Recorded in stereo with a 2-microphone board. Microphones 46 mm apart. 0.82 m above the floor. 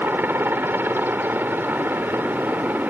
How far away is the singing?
I don't hear singing.